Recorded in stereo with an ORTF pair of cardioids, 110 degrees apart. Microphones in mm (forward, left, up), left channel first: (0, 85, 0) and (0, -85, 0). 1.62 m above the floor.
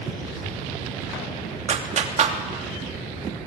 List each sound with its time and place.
1.7 s a clap: 45° right, 3 m